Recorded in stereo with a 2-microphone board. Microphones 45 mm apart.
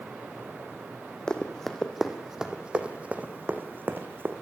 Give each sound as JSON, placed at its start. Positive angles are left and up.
{"t": 1.3, "sound": "running footsteps", "side_deg": 20, "distance_m": 2.5}